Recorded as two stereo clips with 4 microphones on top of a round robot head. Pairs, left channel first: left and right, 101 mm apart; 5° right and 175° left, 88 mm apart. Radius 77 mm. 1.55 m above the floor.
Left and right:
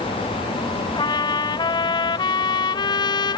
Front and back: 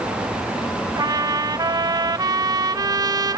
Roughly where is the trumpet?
Behind left.